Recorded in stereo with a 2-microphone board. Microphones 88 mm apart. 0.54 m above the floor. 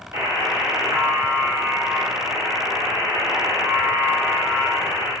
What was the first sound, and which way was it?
A buzzer, 45° right (ahead or behind).